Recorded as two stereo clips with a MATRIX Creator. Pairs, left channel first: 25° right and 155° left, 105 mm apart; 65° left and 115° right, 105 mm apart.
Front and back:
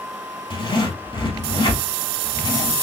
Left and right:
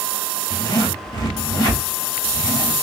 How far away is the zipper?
About 1.9 m.